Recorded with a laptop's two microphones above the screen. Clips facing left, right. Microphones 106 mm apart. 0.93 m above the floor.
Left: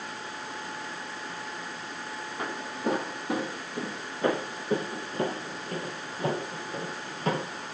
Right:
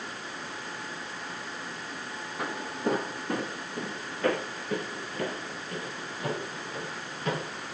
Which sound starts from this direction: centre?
Footsteps, at 2.4 s.